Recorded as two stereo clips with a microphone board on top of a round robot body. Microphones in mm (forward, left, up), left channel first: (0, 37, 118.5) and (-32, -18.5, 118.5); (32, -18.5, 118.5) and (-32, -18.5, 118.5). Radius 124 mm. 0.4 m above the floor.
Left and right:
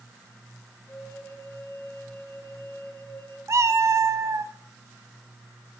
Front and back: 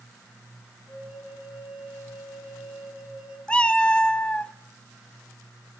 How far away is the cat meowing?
About 0.6 m.